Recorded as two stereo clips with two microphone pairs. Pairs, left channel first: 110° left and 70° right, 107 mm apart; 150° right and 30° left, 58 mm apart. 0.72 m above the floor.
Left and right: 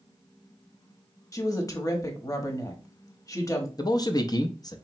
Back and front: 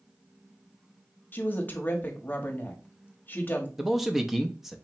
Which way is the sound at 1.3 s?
160° left.